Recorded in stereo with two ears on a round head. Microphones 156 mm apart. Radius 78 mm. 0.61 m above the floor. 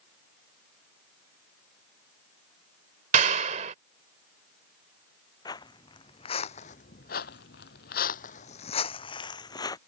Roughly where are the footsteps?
Left.